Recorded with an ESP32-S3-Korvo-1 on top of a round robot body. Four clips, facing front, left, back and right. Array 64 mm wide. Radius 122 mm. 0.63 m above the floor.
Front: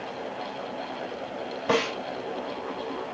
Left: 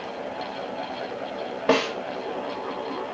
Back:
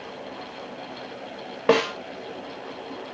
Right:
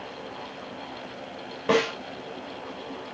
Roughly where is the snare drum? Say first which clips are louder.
Left 1 dB, back 5 dB; behind.